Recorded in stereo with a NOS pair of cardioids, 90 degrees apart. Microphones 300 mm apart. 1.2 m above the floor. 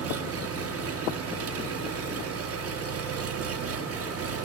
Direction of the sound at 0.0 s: 50° right.